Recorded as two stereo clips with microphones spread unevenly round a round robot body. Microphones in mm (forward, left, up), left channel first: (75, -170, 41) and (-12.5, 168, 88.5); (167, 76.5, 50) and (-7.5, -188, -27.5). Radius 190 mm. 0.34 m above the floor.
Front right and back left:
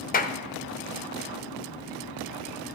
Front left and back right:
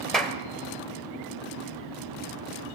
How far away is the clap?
About 1.2 m.